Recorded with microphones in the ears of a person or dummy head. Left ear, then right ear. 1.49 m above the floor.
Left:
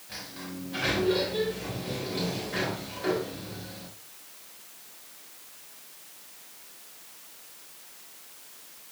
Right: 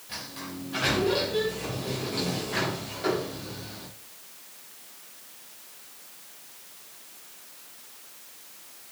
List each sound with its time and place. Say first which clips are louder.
0.1 s a sliding door: right 2 dB; 5° right (ahead or behind), 4 m